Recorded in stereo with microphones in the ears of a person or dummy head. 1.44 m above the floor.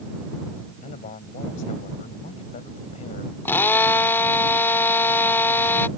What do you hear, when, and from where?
0.8 s a man speaking: 40° left (ahead or behind)
3.5 s a drill: 15° left (ahead or behind)